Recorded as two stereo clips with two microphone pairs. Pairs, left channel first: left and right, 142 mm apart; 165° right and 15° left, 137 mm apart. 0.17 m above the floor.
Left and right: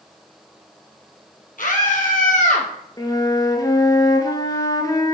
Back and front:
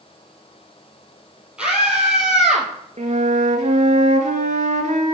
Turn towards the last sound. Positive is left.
turn(degrees=30)